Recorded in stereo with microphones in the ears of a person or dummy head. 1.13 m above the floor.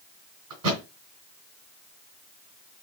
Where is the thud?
75° right (ahead or behind), 3 m.